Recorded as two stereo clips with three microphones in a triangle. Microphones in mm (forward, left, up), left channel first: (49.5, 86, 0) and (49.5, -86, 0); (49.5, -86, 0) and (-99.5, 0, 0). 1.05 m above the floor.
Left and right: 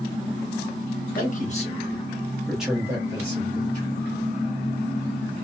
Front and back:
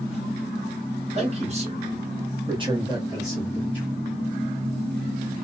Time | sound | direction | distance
1.1 | a man speaking | 105° left | 1.2 m